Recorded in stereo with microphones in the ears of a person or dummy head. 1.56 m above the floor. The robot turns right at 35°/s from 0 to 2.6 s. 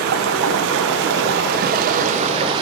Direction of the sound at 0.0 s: 120° right.